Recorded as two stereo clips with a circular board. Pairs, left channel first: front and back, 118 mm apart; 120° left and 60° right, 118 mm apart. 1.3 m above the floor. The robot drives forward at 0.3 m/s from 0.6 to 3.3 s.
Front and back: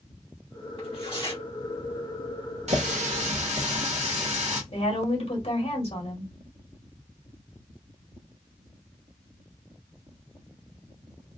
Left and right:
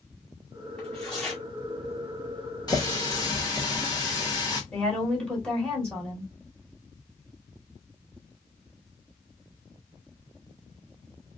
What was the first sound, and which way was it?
Tearing paper, 35° left.